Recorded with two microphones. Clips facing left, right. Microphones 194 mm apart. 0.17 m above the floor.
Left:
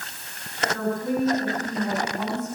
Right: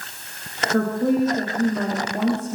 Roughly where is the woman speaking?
Right.